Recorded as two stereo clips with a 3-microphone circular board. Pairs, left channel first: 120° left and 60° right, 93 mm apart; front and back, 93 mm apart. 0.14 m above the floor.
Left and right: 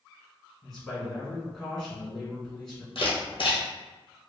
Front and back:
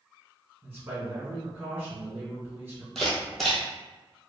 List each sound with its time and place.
0.6 s a man speaking: 155° right, 1.7 m
3.0 s a camera shutter: 85° left, 1.3 m